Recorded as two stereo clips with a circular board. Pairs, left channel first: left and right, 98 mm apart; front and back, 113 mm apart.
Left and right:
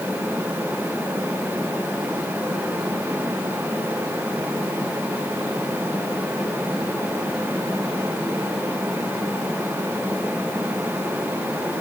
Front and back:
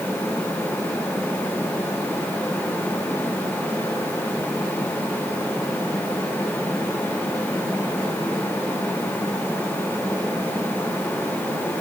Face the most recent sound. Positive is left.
No sound to turn to.